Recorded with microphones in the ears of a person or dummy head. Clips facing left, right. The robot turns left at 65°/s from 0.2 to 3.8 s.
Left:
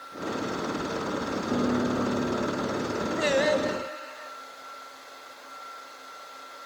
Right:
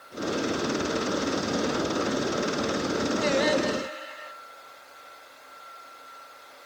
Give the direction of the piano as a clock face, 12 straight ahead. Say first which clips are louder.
Left 2 dB; 8 o'clock.